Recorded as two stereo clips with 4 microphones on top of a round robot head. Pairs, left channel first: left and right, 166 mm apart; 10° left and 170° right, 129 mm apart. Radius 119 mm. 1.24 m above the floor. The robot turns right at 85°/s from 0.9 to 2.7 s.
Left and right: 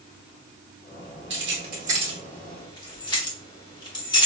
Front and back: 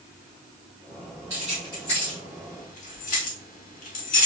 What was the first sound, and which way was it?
Keys jangling, 95° right.